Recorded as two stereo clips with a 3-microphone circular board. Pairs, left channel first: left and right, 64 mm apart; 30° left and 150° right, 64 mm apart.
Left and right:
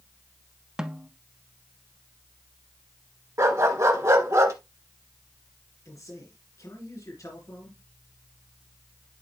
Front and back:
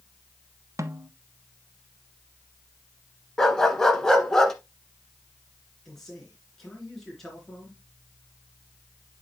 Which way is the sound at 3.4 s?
50° right.